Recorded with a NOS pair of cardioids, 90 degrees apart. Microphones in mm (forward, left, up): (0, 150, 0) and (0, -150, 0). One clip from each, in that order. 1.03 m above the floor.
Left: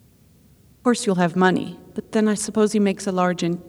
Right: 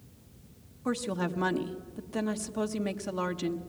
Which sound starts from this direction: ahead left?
A woman speaking, at 0.8 s.